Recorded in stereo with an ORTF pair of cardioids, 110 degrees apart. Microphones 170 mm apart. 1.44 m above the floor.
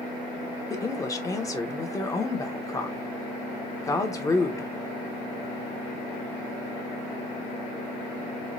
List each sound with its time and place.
0.7 s a woman speaking: 20° left, 0.8 m